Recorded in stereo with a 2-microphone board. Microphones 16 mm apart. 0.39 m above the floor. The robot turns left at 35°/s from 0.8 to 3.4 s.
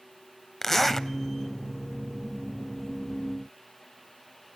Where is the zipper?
20° left (ahead or behind), 0.5 m; by 1.1 s 30° left (ahead or behind), 0.5 m.